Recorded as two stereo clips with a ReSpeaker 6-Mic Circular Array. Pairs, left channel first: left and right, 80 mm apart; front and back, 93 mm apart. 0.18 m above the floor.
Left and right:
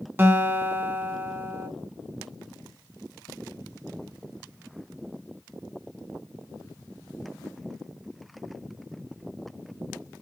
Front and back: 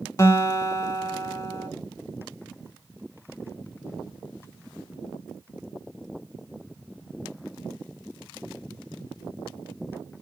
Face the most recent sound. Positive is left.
turn(degrees=-35)